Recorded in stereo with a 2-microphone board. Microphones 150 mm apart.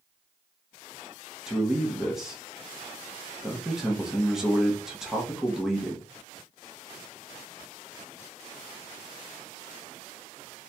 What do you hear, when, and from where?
1.5 s a man speaking: 5° right (ahead or behind), 0.9 m